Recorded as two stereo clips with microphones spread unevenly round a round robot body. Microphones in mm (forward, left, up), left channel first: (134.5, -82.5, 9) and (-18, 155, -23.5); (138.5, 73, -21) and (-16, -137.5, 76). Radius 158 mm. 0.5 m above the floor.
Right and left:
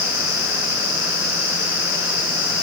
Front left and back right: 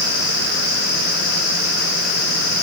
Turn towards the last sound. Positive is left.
No sound to turn to.